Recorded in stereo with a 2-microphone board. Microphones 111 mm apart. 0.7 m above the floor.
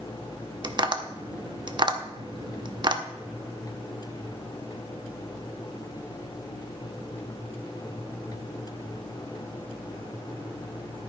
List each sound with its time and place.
0.6 s tapping: 45° right (ahead or behind), 0.8 m